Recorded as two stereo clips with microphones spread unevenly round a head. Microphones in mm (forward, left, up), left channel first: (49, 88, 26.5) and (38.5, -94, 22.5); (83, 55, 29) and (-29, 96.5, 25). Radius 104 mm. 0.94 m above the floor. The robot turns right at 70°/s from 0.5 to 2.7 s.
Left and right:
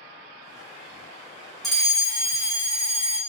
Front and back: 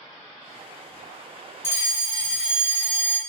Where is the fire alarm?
10° right, 1.2 m; by 3.2 s 65° left, 1.2 m.